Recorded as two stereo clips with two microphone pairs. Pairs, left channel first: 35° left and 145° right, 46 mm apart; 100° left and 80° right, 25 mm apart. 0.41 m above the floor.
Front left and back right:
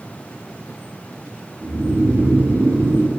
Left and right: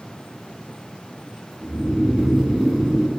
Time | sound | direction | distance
1.6 | snoring | 150° right | 1.6 m